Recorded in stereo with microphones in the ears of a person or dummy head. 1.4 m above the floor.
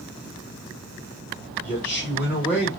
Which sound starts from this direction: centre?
A man speaking, at 1.6 s.